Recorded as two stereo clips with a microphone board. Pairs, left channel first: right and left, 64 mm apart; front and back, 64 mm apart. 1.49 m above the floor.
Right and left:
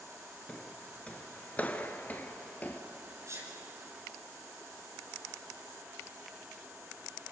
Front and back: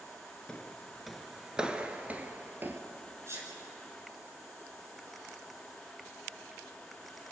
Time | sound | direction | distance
0.5 | footsteps | 50° right | 1.5 m
3.3 | a sneeze | 135° left | 9.5 m